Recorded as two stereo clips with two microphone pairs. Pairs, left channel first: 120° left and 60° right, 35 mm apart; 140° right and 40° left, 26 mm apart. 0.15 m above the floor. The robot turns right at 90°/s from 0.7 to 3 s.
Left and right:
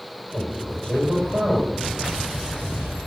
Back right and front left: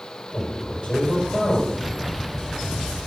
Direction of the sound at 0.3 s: 165° left.